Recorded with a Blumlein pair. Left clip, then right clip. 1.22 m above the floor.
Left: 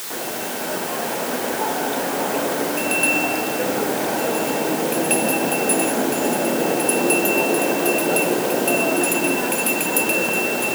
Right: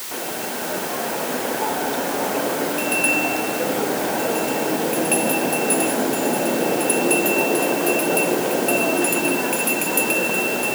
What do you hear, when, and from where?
Only background noise.